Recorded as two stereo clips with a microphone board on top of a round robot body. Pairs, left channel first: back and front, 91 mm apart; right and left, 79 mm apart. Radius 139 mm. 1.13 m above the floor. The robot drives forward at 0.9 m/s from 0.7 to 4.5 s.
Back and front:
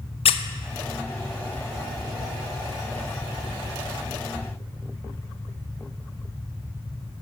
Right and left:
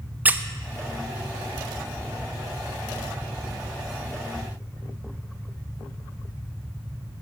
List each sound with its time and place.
0.2 s a squeak: 160° left, 0.6 m